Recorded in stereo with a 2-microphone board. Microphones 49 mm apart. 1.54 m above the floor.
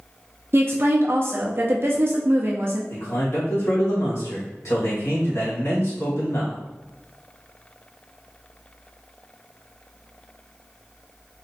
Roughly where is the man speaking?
Left.